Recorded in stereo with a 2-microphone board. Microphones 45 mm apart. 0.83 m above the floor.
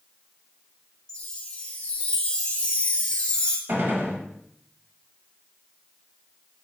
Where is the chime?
20° left (ahead or behind), 0.7 m.